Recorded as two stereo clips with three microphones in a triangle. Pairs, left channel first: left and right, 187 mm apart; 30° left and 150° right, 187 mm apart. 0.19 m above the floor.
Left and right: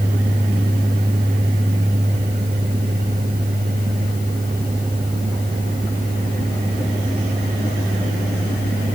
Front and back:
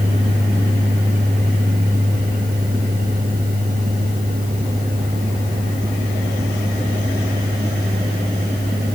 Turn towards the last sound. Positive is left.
No sound to turn to.